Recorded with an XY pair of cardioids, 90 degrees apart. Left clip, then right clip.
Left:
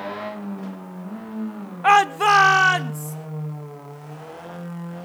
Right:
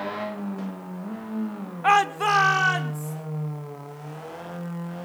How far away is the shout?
About 0.8 m.